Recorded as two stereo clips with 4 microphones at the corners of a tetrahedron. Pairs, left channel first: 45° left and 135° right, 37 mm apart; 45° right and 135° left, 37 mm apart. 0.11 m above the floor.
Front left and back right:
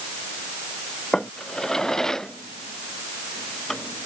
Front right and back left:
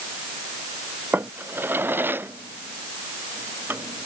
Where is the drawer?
120° left.